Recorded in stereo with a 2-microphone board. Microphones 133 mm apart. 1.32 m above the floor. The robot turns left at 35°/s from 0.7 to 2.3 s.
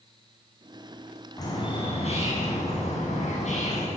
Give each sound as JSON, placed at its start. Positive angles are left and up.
{"t": 1.4, "sound": "a bird", "azimuth_deg": 155, "distance_m": 9.0}